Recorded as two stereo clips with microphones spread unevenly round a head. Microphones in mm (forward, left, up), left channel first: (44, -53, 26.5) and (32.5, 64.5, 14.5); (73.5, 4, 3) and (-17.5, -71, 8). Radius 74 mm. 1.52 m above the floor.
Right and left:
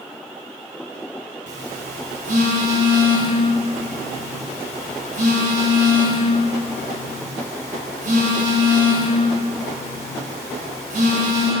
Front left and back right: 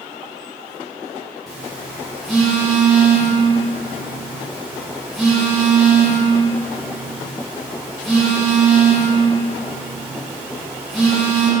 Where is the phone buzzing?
130° left, 1.4 m.